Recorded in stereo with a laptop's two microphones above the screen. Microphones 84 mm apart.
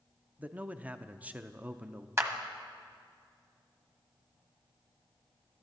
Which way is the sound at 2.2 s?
35° right (ahead or behind).